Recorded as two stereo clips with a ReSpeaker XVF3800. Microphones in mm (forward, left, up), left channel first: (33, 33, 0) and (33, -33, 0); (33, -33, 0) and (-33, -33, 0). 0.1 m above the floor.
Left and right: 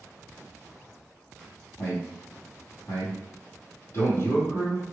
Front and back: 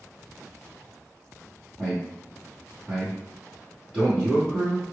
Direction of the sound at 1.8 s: 100° left.